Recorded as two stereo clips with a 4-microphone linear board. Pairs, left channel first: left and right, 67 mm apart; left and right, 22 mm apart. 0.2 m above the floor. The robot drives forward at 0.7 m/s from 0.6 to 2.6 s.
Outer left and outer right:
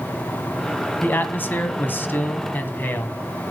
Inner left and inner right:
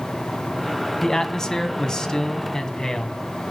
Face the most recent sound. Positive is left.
turn(degrees=30)  # may be behind; listen again after turning